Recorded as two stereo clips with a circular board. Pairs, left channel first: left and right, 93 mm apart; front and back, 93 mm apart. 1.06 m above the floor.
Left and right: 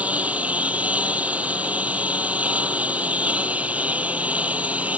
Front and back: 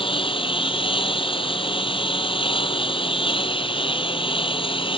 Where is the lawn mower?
15° right.